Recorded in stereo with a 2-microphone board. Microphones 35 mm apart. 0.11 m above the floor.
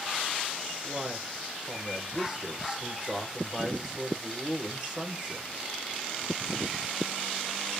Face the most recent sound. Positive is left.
turn(degrees=-10)  # may be behind; listen again after turning